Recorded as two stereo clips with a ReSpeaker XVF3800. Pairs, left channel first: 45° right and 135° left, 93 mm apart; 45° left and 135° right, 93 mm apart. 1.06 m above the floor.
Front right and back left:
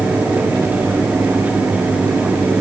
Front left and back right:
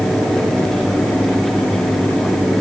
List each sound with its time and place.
Only background noise.